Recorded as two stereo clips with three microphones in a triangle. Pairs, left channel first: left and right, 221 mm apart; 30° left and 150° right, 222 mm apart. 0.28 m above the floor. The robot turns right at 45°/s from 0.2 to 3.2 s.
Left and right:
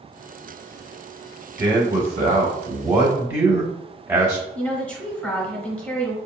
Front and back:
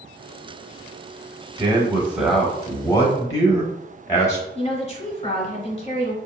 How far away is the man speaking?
About 0.9 m.